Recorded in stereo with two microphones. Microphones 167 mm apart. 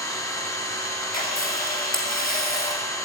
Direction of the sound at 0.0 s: 20° left (ahead or behind).